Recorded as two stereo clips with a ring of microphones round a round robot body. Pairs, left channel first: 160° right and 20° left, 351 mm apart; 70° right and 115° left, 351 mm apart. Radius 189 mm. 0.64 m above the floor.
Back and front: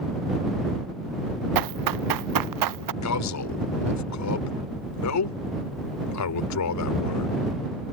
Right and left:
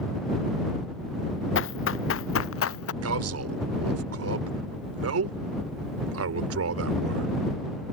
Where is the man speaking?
160° left.